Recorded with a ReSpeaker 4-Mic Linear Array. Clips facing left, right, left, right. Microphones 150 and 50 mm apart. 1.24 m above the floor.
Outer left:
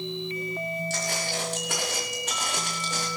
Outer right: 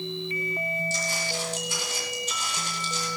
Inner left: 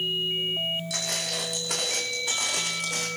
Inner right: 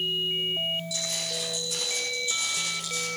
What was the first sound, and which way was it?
Footsteps, 70° left (ahead or behind).